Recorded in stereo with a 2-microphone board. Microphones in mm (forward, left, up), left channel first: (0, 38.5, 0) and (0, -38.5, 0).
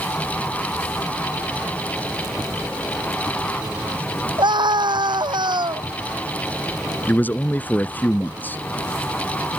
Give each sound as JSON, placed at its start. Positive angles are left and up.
{"t": 4.4, "sound": "a scream", "side_deg": -75}
{"t": 7.1, "sound": "a man speaking", "side_deg": 25}